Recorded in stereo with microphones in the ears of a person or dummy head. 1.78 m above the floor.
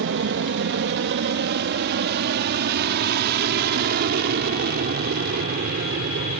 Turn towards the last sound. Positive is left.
turn(degrees=-50)  # may be behind; listen again after turning